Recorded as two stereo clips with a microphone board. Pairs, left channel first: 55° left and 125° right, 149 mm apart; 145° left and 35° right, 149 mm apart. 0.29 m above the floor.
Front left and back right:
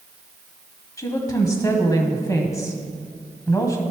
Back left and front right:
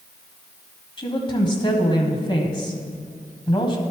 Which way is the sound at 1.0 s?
110° left.